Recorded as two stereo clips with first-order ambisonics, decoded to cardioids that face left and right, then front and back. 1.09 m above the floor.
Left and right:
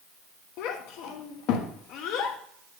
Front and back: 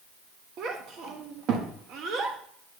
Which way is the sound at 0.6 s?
125° left.